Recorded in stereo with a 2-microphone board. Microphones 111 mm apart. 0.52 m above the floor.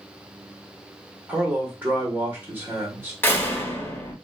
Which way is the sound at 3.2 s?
20° left (ahead or behind).